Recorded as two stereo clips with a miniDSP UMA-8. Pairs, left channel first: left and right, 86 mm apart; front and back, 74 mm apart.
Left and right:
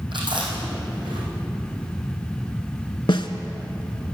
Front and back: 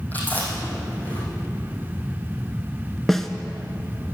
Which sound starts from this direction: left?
A snare drum, at 3.1 s.